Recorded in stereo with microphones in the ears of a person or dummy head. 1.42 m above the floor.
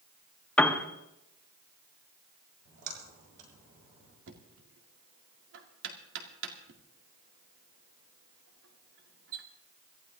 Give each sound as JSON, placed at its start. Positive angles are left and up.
{"t": 0.6, "sound": "a piano", "side_deg": 10, "distance_m": 0.9}
{"t": 2.6, "sound": "a splash", "side_deg": -50, "distance_m": 6.0}
{"t": 4.3, "sound": "knocking", "side_deg": -70, "distance_m": 1.9}